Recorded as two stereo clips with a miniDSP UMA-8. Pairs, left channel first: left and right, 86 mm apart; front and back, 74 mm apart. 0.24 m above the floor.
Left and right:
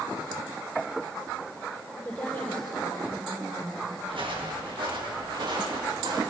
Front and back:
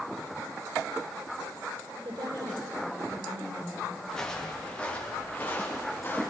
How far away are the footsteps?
About 4.5 m.